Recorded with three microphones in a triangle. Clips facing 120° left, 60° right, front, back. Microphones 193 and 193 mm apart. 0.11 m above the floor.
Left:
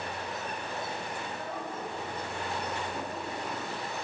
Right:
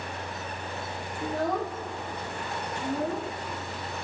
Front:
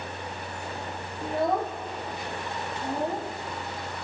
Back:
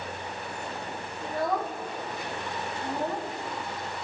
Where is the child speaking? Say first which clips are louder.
Right 9 dB, front 3 dB; 65° right, 2.5 m; by 3.3 s 75° right, 3.5 m.